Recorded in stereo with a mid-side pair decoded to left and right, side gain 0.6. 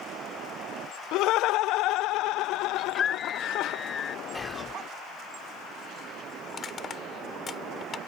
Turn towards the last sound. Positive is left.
turn(degrees=30)